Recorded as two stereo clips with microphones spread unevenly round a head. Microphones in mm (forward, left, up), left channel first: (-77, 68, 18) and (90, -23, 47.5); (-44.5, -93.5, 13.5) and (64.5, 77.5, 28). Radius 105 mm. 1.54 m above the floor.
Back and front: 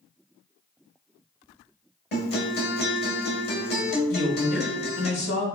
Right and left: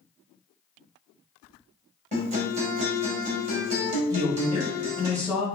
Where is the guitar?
115° left, 1.4 m.